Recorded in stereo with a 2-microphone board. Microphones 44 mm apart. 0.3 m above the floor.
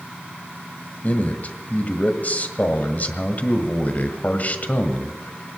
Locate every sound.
1.0 s a man speaking: 40° left (ahead or behind), 1.6 m